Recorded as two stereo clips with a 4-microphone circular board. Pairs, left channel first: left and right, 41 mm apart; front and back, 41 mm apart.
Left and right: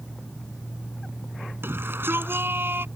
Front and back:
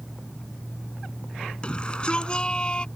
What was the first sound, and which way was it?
A shout, 65° right.